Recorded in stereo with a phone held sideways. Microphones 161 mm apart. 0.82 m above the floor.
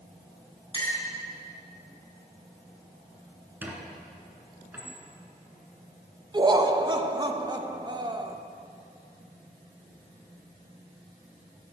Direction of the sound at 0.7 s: 30° left (ahead or behind).